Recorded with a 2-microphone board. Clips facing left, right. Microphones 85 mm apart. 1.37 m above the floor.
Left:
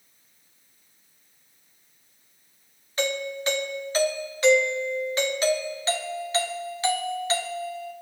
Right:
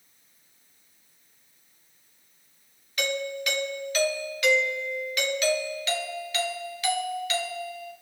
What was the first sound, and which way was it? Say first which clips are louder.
A doorbell: left 2 dB; 30° left (ahead or behind).